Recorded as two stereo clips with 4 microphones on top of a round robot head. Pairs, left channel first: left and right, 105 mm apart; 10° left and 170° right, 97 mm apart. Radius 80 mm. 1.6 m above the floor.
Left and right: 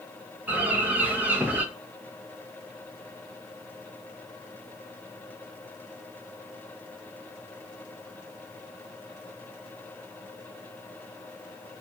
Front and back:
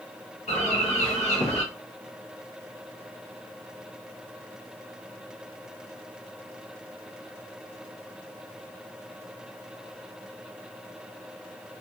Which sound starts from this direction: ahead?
A bird, at 0.5 s.